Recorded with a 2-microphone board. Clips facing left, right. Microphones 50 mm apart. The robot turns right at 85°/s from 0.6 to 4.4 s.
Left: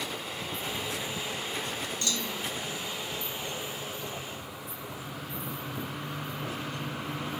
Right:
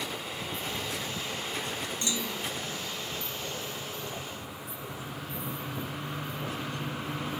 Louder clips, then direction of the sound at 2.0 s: Even; 25° right.